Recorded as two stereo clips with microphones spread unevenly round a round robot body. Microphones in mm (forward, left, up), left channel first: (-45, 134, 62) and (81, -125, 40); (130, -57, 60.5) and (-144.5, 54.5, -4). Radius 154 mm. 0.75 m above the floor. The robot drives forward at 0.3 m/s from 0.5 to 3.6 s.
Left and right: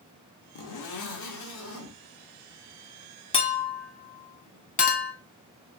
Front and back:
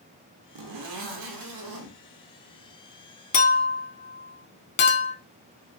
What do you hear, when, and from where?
0.6 s a zipper: 140° left, 0.7 m; by 2.0 s 155° left, 1.0 m
3.3 s a clink: 45° left, 0.6 m; by 5.1 s 50° left, 0.5 m